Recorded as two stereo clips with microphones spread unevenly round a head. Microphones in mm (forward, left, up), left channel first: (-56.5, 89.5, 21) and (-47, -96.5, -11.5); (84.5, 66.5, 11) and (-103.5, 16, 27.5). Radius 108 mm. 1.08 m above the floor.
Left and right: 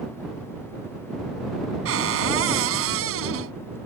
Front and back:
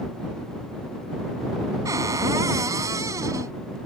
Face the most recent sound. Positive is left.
turn(degrees=-90)